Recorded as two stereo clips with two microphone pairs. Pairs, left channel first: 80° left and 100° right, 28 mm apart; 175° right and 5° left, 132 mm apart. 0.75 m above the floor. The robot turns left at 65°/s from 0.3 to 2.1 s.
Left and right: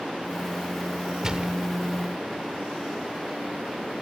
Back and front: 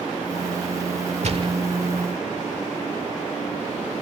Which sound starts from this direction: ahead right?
A gunshot, at 1.2 s.